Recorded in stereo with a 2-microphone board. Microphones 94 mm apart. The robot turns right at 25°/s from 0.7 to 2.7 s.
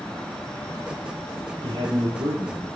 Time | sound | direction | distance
1.6 | a man speaking | 65° right (ahead or behind) | 3 m